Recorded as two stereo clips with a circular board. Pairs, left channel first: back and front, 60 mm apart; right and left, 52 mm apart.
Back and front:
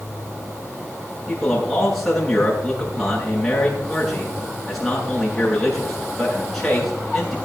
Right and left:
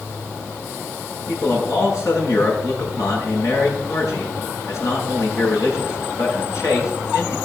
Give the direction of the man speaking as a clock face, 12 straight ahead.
3 o'clock.